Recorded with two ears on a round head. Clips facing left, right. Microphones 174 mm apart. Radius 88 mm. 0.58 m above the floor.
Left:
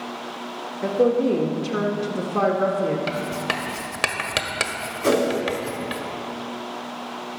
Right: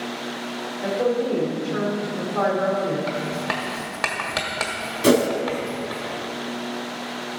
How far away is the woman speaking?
About 1.6 m.